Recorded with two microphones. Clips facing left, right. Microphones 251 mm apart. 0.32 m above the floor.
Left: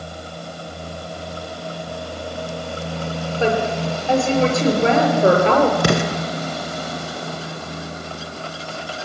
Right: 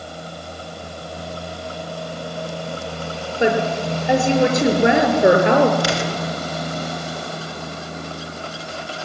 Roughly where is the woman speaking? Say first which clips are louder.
Right 2 dB; centre.